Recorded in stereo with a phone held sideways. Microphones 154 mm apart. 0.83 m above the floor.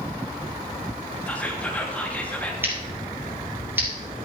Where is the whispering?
10° left (ahead or behind), 1.2 m.